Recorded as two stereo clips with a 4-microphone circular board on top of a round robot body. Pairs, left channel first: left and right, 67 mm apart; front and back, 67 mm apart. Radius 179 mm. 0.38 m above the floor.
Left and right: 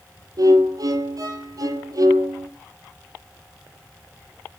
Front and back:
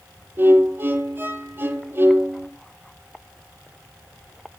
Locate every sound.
0.4 s a violin: 120° right, 6 m